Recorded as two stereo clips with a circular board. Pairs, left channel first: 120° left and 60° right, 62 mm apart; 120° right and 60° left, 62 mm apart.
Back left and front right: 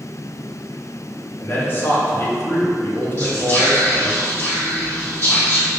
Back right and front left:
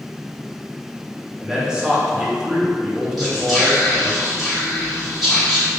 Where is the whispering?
145° left, 1.8 m.